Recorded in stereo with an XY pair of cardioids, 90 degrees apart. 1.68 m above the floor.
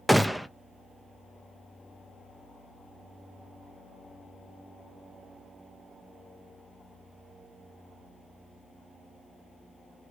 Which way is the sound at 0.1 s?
5° right.